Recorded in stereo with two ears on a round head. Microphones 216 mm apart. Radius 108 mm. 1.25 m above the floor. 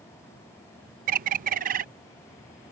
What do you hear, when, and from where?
1.1 s a bird: 35° right (ahead or behind)